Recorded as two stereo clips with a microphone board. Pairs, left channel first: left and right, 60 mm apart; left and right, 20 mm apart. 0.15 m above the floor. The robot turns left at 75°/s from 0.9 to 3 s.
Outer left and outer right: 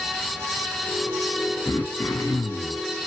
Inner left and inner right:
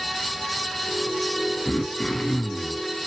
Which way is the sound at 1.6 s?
130° left.